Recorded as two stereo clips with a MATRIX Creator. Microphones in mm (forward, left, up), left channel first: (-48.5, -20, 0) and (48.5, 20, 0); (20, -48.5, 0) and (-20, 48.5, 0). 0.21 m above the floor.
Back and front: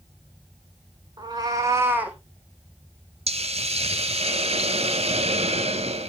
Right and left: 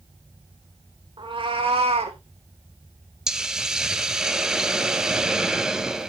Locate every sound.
1.2 s a cat meowing: 75° left, 2 m; by 2.2 s 105° left, 1.4 m
3.3 s a hiss: 30° left, 0.8 m